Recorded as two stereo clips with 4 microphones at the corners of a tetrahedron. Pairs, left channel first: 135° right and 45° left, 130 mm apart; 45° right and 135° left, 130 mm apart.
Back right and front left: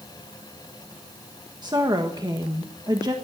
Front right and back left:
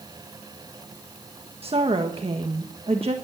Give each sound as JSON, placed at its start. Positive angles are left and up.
{"t": 1.6, "sound": "a woman speaking", "azimuth_deg": 100, "distance_m": 1.5}